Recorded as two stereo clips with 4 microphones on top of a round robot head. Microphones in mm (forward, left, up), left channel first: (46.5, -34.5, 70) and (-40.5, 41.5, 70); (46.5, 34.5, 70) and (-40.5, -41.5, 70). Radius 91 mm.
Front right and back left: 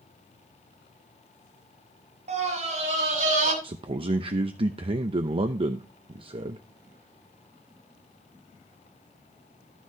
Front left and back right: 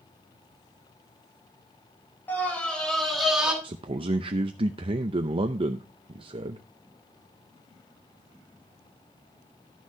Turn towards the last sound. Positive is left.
turn(degrees=180)